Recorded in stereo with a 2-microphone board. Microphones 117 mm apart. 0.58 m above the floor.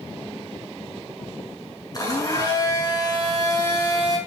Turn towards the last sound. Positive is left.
turn(degrees=30)  # may be behind; listen again after turning